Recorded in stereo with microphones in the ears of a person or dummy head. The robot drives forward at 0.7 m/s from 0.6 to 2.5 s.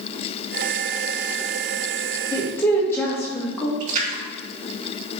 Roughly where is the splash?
Right.